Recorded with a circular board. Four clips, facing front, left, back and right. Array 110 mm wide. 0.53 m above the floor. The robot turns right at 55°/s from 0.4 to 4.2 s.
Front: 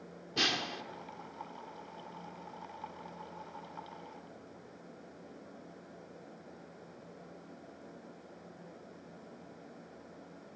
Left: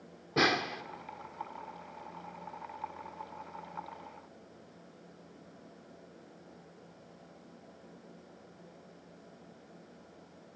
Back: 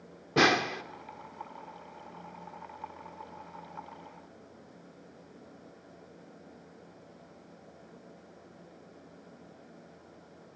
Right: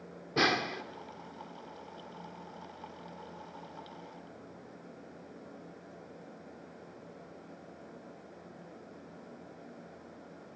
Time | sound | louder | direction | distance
0.4 | a snare drum | even, back 11 dB | straight behind | 1.1 m